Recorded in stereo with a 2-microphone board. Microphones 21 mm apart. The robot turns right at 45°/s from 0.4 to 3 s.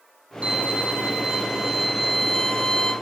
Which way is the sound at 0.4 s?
75° right.